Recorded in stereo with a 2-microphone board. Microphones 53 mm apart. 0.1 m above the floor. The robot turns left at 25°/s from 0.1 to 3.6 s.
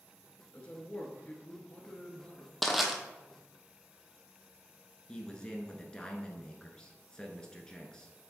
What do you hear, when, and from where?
0.5 s a man speaking: 140° left, 1.2 m; by 2.5 s 90° left, 1.2 m
2.6 s crushing: centre (ahead or behind), 1.0 m; by 2.9 s 5° right (ahead or behind), 1.0 m
5.1 s a man speaking: 15° left (ahead or behind), 1.1 m